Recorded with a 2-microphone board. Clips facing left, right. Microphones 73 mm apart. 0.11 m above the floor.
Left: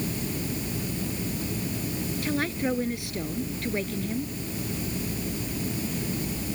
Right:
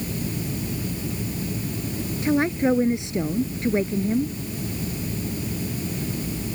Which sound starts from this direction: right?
A woman speaking, at 2.2 s.